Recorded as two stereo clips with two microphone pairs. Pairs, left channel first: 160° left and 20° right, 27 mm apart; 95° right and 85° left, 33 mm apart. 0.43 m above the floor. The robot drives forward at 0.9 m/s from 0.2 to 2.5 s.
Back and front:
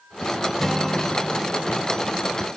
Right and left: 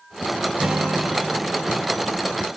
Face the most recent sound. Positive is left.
turn(degrees=165)